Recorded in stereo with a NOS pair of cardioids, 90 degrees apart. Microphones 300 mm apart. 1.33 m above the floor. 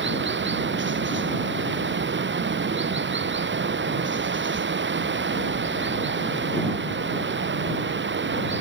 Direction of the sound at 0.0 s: 40° right.